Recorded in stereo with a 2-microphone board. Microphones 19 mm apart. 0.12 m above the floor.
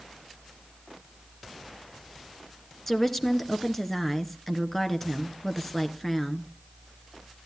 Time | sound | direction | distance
2.9 | a woman speaking | 10° left (ahead or behind) | 1.4 m